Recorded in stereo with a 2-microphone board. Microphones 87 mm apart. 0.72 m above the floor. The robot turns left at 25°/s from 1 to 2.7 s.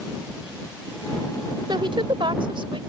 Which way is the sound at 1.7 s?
65° right (ahead or behind).